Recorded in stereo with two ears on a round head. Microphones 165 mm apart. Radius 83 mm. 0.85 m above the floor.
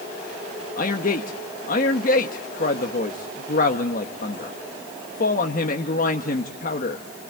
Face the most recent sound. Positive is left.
turn(degrees=45)  # may be behind; listen again after turning